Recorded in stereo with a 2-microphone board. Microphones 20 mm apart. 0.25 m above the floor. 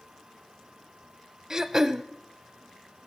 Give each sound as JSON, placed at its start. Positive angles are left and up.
{"t": 1.5, "sound": "throat clearing", "side_deg": -20, "distance_m": 0.6}